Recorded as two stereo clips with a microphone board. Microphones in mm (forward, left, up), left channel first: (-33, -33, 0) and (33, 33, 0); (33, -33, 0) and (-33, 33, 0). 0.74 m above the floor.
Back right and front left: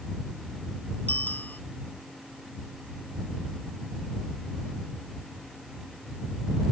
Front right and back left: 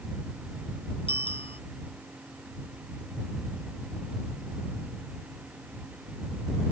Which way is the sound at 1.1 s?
60° right.